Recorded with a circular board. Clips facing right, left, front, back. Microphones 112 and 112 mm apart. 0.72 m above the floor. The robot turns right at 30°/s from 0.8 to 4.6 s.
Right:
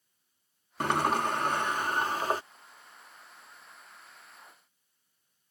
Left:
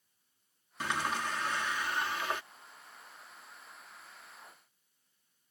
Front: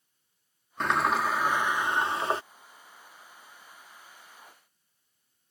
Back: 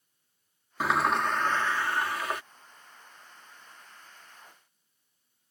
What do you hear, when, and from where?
0.8 s a sliding door: 95° right; by 2.4 s 50° right